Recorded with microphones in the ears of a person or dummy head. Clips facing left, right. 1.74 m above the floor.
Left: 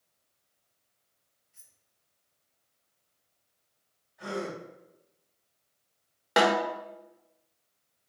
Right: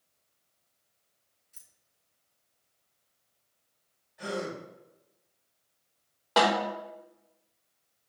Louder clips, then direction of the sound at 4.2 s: Even; 45° right (ahead or behind).